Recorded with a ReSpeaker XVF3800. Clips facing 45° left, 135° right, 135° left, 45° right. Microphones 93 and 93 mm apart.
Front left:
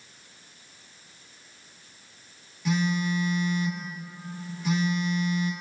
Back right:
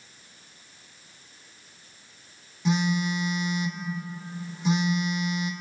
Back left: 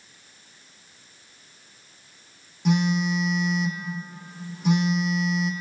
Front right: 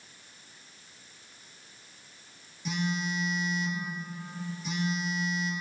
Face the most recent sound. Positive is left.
turn(degrees=160)